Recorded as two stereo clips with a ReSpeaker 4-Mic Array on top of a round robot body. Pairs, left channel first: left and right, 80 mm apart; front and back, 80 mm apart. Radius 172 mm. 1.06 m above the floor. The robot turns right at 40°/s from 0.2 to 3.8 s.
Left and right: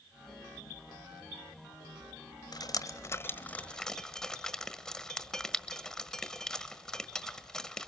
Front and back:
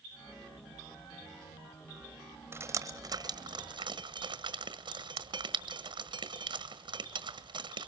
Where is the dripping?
125° left, 1.6 m; by 7.9 s 175° left, 1.6 m.